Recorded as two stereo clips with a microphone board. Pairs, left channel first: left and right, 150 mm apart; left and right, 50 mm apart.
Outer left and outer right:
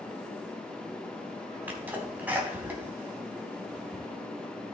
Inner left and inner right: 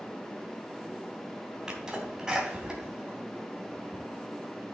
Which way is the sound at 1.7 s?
10° right (ahead or behind).